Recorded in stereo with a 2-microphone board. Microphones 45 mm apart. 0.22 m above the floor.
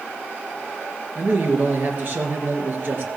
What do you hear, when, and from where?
1.1 s a man speaking: 45° right (ahead or behind), 3.5 m